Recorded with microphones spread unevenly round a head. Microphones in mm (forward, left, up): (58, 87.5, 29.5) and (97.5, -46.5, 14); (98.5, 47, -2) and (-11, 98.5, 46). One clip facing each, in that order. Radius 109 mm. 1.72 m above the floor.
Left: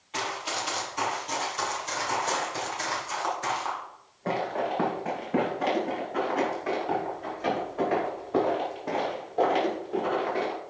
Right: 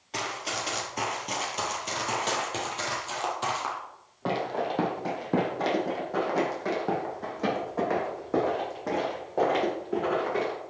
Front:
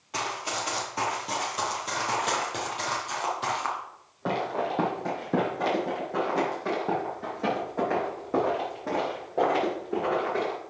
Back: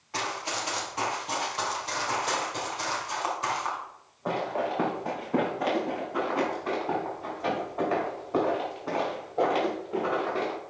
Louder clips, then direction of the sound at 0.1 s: Left 1 dB, front 1 dB; 120° right.